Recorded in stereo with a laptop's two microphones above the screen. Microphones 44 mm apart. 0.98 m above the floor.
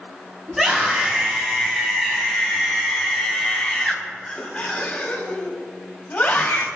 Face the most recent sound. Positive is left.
turn(degrees=40)  # may be behind; listen again after turning